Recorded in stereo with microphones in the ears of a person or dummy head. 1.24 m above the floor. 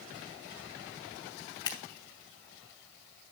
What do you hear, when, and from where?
1.6 s scissors: 20° left (ahead or behind), 2.5 m